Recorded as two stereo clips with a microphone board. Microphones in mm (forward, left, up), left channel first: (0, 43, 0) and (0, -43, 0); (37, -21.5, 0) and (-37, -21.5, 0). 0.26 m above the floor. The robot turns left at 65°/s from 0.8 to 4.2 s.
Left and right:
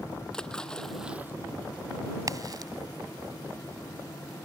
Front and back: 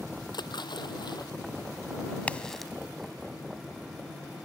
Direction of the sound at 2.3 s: 65° right.